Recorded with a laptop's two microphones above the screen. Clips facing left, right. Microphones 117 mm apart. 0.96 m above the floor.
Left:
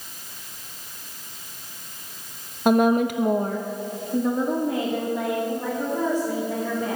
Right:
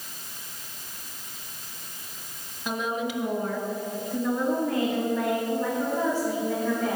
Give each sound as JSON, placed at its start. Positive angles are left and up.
{"t": 2.6, "sound": "a woman speaking", "side_deg": 55, "distance_m": 0.7}